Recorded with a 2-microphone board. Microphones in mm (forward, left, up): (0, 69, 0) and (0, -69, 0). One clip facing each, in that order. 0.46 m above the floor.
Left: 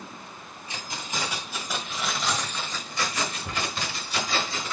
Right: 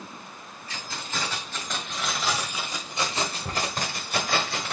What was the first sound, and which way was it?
Keys jangling, 20° left (ahead or behind).